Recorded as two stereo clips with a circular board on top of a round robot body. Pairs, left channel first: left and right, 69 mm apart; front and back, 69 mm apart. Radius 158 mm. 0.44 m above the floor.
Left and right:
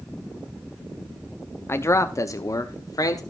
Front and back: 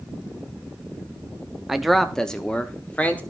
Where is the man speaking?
100° left, 0.8 m; by 3.2 s 70° left, 1.4 m.